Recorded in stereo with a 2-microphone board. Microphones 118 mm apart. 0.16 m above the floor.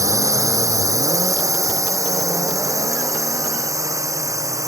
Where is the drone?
30° right (ahead or behind).